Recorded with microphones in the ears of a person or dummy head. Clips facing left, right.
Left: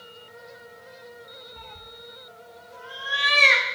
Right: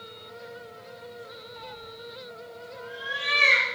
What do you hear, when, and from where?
1.6 s a cat meowing: 20° left (ahead or behind), 1.1 m; by 3.6 s 65° left (ahead or behind), 1.9 m